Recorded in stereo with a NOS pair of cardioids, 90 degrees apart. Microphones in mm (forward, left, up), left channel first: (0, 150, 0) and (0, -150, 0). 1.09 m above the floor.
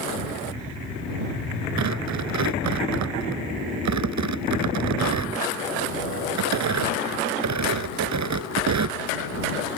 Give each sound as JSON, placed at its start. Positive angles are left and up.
{"t": 1.8, "sound": "tearing paper", "azimuth_deg": -65}